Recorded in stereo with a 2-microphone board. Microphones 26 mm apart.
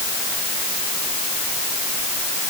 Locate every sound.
Only background noise.